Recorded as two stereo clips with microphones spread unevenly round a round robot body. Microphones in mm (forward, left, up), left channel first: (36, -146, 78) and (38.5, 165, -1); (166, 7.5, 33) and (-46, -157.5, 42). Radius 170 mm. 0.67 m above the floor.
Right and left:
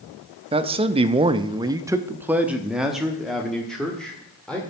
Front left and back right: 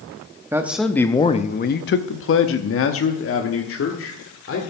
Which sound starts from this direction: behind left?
A man speaking, at 0.5 s.